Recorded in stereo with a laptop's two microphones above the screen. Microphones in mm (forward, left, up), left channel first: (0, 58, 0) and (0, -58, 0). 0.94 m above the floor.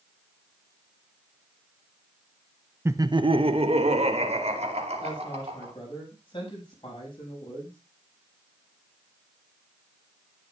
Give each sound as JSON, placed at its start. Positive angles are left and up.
{"t": 2.9, "sound": "laughter", "side_deg": -20, "distance_m": 0.7}
{"t": 5.0, "sound": "a woman speaking", "side_deg": 45, "distance_m": 7.0}